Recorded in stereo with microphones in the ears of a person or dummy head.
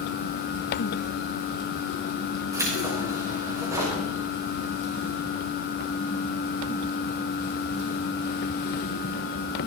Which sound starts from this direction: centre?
Keys jangling, at 2.5 s.